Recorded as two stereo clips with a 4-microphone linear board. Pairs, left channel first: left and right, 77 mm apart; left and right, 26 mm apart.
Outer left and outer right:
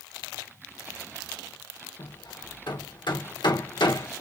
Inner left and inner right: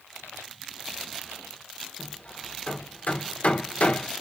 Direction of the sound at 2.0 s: 70° left (ahead or behind).